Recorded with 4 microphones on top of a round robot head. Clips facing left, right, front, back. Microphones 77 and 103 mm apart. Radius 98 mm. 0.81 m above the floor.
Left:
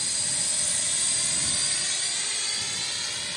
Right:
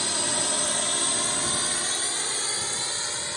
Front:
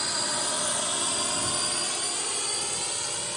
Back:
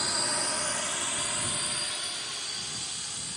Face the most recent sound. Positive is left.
turn(degrees=-30)